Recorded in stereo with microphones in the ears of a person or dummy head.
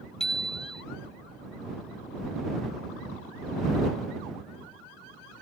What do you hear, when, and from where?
0.2 s a bicycle bell: 5° left (ahead or behind)